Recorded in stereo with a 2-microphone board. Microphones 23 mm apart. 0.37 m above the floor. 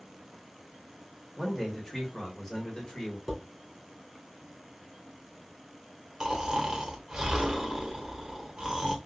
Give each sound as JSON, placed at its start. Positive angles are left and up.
{"t": 1.4, "sound": "a man speaking", "side_deg": 0, "distance_m": 1.5}
{"t": 3.3, "sound": "dishes clattering", "side_deg": -10, "distance_m": 2.5}
{"t": 6.2, "sound": "snoring", "side_deg": -35, "distance_m": 0.9}